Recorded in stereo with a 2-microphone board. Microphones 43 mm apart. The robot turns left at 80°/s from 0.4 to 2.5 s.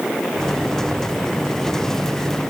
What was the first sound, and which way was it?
Only background noise.